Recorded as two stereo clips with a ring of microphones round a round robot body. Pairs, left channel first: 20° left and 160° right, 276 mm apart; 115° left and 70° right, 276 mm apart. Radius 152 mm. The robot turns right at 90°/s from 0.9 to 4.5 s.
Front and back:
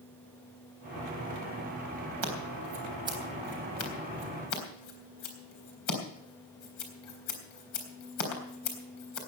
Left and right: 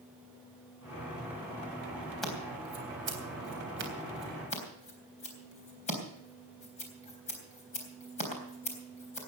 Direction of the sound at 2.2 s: 160° right.